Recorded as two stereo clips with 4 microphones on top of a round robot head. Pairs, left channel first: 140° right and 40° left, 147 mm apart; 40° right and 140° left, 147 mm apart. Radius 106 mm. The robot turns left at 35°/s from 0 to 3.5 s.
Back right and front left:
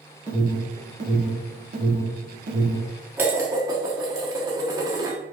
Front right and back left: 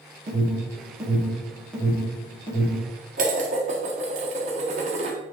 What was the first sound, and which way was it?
An alarm, 100° left.